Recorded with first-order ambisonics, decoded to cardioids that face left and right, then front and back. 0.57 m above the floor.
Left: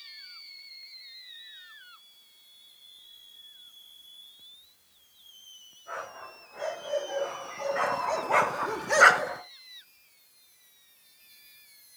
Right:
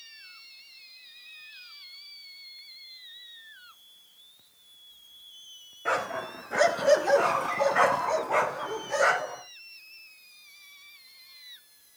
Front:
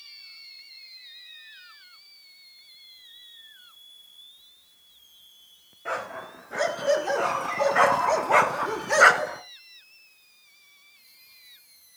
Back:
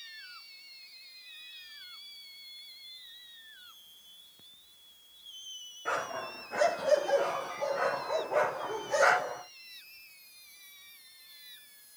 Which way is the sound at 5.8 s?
80° right.